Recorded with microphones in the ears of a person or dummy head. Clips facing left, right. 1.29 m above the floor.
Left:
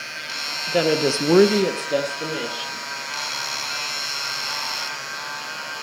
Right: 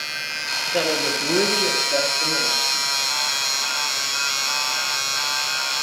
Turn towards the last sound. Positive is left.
turn(degrees=40)  # may be behind; listen again after turning